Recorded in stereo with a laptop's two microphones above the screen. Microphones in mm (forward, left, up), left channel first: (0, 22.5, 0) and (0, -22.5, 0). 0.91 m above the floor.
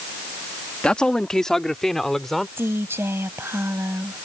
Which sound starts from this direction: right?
A woman speaking, at 2.6 s.